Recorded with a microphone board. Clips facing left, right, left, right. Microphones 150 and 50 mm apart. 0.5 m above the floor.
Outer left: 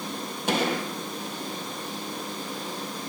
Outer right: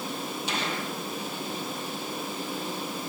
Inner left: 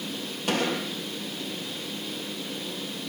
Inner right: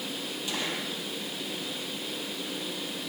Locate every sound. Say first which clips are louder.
0.5 s a gunshot: outer left 9 dB, inner left 8 dB; 55° left (ahead or behind), 6 m